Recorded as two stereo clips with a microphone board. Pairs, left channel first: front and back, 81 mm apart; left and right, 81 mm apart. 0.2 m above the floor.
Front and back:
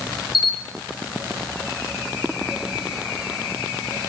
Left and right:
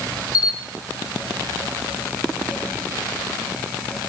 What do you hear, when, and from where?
0.3 s a camera shutter: 5° left, 1.3 m